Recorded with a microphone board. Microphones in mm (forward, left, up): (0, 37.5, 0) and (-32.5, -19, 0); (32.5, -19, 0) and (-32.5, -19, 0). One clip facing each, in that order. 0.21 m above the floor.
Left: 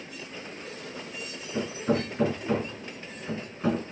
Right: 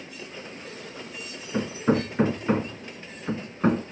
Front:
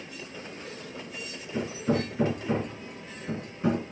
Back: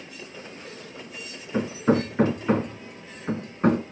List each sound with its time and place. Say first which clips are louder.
1.5 s hammering: right 3 dB, back 5 dB; 160° right, 2 m